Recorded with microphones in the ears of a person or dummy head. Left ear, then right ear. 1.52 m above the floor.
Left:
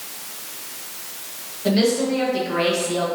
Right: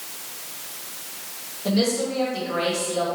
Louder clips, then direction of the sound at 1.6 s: Left 4 dB; 10° left (ahead or behind).